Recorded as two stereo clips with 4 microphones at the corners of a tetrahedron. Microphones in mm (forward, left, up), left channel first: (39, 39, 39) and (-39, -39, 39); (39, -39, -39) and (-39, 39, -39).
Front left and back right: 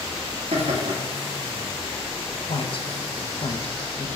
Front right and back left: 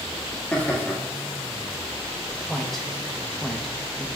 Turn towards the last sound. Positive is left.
turn(degrees=40)